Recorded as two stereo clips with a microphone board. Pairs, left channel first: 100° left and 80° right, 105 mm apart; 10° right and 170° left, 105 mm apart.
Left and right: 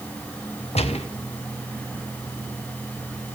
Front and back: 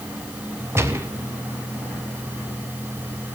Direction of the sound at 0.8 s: 105° left.